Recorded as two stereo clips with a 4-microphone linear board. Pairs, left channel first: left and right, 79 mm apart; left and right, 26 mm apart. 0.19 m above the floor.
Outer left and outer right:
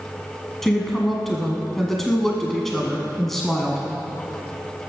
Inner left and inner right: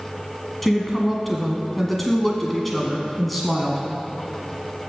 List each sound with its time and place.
0.6 s a woman speaking: 5° left (ahead or behind), 1.2 m